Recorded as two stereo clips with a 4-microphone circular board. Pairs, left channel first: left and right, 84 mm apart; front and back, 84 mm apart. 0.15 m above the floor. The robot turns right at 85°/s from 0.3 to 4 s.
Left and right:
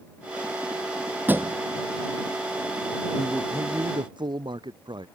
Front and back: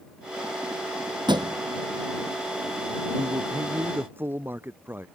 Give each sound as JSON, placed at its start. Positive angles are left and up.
{"t": 1.3, "sound": "a thud", "azimuth_deg": -160}
{"t": 3.1, "sound": "a man speaking", "azimuth_deg": 170}